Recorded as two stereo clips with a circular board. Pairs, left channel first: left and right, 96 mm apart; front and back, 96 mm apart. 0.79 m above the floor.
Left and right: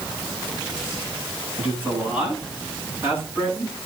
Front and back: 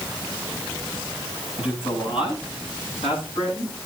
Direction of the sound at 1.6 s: 20° right.